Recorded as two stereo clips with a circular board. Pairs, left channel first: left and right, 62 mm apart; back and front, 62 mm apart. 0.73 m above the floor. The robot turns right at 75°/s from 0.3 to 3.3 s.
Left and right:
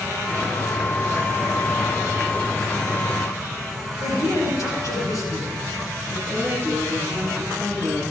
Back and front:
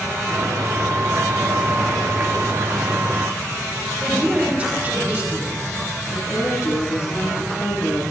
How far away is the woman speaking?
About 8 m.